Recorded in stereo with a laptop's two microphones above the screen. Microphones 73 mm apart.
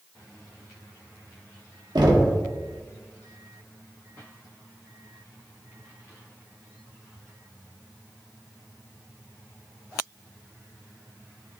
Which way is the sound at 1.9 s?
70° right (ahead or behind).